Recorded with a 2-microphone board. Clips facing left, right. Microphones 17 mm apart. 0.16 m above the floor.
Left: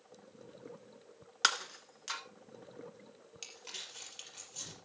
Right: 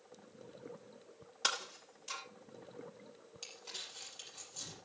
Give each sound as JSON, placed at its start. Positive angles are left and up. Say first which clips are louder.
{"t": 1.4, "sound": "breaking glass", "louder": "left 5 dB", "side_deg": 50, "distance_m": 1.3}
{"t": 3.4, "sound": "crumpling", "louder": "left 1 dB", "side_deg": 45, "distance_m": 5.0}